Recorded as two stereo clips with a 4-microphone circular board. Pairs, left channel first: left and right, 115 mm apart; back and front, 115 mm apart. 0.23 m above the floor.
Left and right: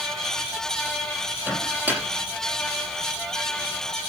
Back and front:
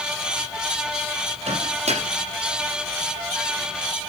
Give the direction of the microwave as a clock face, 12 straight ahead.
1 o'clock.